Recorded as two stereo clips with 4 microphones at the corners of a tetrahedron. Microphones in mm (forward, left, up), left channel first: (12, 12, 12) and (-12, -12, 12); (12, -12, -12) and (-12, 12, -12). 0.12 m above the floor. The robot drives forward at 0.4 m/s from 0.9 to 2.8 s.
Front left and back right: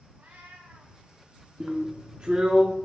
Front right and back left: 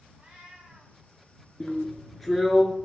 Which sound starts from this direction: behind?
A cat meowing, at 0.2 s.